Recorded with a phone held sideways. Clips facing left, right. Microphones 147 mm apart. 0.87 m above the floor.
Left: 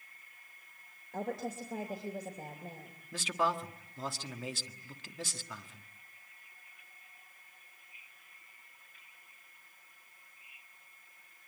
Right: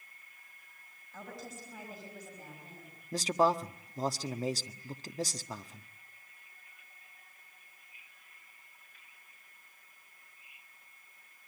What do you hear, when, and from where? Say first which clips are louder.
1.1 s a woman speaking: left 9 dB; 85° left, 3.5 m
3.1 s a man speaking: right 5 dB; 40° right (ahead or behind), 1.3 m